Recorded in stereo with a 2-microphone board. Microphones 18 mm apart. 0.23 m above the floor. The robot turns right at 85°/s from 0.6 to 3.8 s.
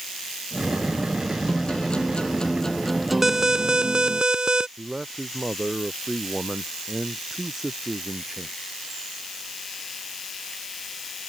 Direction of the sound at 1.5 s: 45° left.